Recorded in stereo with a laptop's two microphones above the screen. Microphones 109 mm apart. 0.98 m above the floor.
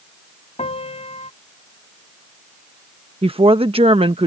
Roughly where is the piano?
Left.